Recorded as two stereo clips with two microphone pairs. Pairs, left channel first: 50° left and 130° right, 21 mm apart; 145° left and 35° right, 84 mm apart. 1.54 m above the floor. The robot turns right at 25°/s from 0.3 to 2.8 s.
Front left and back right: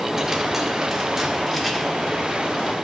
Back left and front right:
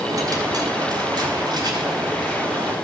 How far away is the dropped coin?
About 1.6 m.